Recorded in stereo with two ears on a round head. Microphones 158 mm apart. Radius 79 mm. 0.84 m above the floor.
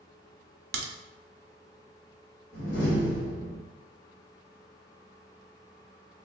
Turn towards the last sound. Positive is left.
turn(degrees=70)  # may be behind; listen again after turning